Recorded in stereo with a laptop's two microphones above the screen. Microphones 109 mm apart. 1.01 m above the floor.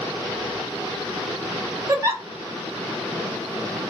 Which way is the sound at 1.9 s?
30° right (ahead or behind).